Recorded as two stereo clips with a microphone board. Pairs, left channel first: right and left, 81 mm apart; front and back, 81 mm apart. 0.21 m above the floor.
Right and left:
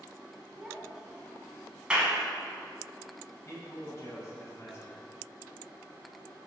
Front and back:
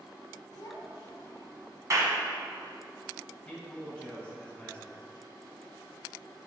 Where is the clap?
160° left, 1.3 m.